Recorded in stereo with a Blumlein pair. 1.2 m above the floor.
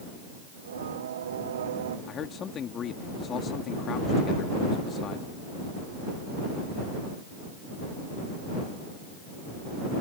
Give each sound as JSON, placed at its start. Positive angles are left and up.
{"t": 0.5, "sound": "singing", "azimuth_deg": -60}
{"t": 2.1, "sound": "a man speaking", "azimuth_deg": 25}